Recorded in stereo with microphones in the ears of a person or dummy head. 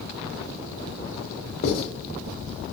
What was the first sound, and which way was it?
Writing, 55° left (ahead or behind).